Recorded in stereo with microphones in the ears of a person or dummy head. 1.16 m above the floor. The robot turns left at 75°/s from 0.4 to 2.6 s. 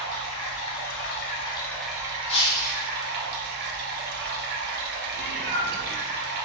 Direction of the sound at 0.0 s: 110° left.